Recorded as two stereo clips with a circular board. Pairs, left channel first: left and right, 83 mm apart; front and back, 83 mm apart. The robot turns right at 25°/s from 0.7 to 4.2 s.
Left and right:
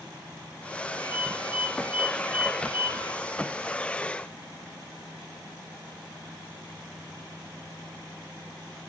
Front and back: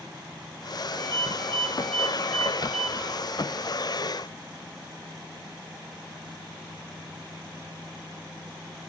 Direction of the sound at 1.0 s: 55° left.